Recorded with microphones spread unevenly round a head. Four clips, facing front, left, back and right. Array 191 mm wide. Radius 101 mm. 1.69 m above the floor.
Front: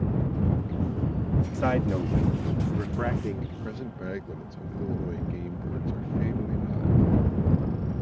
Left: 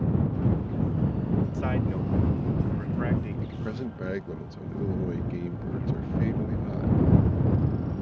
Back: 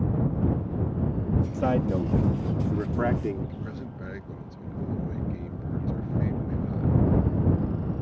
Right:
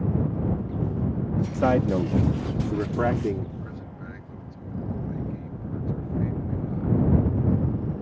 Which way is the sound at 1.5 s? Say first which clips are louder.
Right 7 dB, even; 95° right.